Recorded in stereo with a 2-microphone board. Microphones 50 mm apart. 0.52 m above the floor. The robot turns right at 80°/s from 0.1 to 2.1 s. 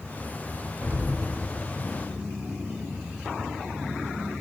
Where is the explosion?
45° right, 1.7 m; by 2.2 s 55° left, 1.7 m.